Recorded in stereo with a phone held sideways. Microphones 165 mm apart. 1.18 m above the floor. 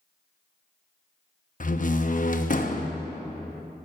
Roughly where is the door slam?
Left.